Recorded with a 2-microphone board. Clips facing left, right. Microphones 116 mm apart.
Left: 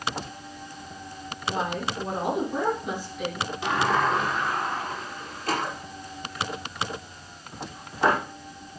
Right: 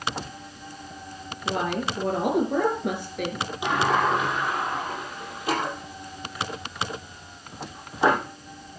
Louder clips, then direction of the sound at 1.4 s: Right 2 dB; 80° right.